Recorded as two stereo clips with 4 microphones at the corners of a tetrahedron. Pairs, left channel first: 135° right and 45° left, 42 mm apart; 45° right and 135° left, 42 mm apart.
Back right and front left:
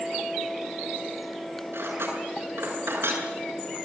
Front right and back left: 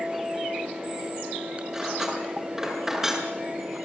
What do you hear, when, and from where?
1.7 s cutlery clinking: 55° left, 6.5 m